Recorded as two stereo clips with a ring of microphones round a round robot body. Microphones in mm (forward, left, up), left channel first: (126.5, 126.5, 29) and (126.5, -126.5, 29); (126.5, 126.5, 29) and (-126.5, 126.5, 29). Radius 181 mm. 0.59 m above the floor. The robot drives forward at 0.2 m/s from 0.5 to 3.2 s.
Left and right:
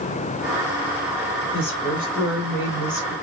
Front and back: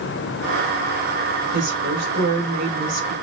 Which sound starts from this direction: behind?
A woman speaking, at 1.5 s.